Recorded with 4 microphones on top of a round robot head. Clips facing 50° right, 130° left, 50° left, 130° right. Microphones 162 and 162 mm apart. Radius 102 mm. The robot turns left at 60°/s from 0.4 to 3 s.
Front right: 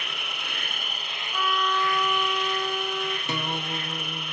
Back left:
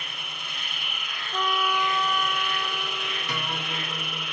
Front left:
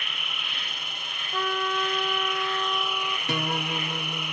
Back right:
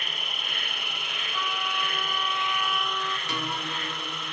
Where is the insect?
75° right, 0.9 m; by 4.3 s 130° left, 0.9 m.